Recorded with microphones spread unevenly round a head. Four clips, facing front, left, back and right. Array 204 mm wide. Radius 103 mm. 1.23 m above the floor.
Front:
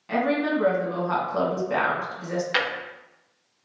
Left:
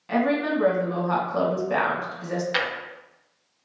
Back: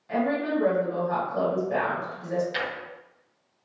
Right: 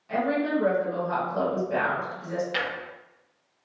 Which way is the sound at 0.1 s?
50° left.